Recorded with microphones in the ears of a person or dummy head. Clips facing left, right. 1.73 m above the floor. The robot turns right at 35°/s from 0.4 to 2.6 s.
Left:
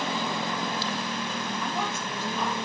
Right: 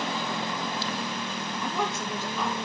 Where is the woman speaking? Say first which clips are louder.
Right 1 dB; 95° right, 2.0 m; by 2.5 s 60° right, 2.0 m.